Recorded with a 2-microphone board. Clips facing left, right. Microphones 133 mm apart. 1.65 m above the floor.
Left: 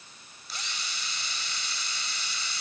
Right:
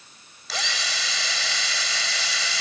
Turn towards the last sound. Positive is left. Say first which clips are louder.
# right 10 dB
turn(degrees=-85)